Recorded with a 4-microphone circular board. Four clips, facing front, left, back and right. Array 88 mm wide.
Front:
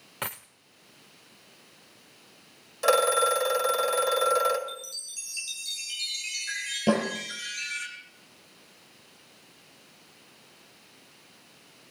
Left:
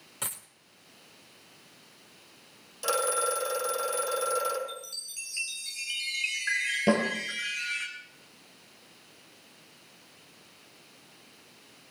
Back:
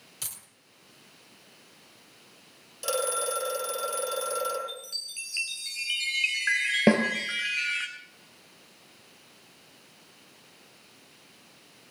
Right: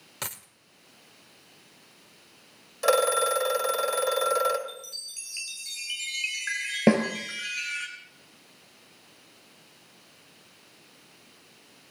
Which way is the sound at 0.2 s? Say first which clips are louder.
Right 3 dB, front 16 dB; 15° right.